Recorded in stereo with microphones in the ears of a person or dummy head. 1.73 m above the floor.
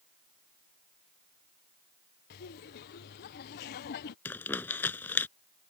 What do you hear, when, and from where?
2.3 s laughter: 55° left (ahead or behind)
4.2 s crumpling: 10° left (ahead or behind)